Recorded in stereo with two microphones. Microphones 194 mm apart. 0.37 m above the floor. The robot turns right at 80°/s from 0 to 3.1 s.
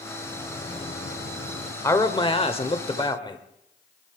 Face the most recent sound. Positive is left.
turn(degrees=20)  # may be behind; listen again after turning